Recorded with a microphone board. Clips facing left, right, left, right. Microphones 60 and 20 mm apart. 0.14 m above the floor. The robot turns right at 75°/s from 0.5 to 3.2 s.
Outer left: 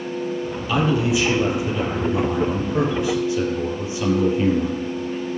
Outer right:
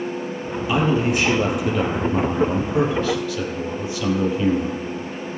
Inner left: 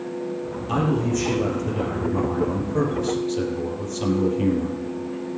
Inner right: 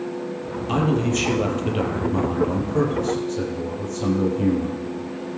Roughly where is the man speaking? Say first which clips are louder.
Even, inner right 1 dB; behind.